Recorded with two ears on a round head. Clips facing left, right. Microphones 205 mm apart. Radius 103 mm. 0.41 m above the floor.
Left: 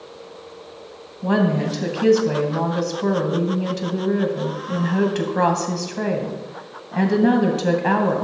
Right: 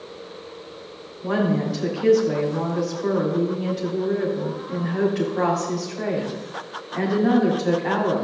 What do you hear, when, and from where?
1.2 s a woman speaking: 70° left (ahead or behind), 2.5 m